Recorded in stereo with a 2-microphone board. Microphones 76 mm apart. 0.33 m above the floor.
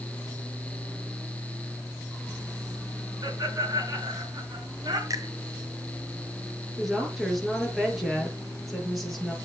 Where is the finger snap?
45° right (ahead or behind), 2 m.